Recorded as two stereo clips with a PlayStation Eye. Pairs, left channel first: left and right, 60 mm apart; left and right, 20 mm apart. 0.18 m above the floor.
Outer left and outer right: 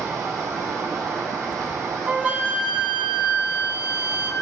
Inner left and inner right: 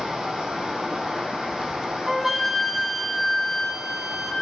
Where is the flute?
25° right (ahead or behind), 1.3 m.